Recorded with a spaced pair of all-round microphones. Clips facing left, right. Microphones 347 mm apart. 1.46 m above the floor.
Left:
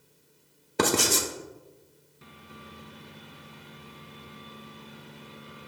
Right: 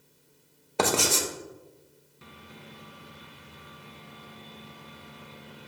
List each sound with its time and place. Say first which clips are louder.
0.8 s writing: left 1 dB; 25° left (ahead or behind), 0.7 m